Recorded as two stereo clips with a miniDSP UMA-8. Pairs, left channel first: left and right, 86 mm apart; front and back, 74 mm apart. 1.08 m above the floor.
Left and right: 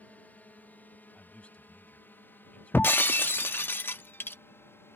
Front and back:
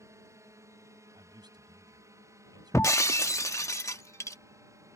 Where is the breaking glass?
30° left.